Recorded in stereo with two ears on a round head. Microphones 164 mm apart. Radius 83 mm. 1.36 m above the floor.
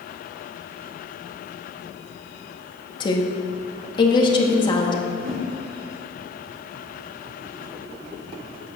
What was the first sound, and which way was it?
A woman speaking, 25° left (ahead or behind).